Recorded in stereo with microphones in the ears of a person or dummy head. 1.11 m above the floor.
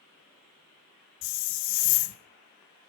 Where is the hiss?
60° left (ahead or behind), 0.6 m.